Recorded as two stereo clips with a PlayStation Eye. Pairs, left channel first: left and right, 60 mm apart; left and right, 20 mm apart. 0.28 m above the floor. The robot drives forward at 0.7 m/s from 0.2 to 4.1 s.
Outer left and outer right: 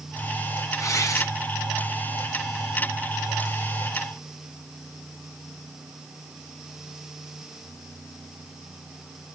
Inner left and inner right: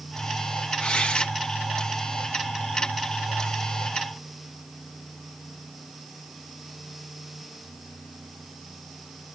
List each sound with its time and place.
0.8 s tearing paper: 60° left (ahead or behind), 2 m; by 1.3 s 65° left (ahead or behind), 2 m